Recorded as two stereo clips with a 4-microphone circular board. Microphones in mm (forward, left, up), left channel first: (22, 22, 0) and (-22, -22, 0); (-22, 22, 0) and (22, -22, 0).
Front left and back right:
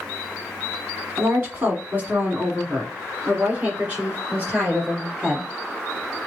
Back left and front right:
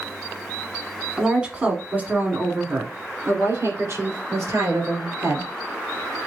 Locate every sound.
1.2 s a woman speaking: 110° right, 1.4 m; by 5.5 s 65° right, 3 m